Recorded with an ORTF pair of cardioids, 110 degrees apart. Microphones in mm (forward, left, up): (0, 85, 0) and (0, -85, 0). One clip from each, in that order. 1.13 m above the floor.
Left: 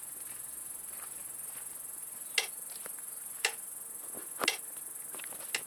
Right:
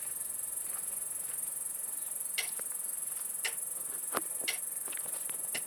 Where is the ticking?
55° left, 1.3 m.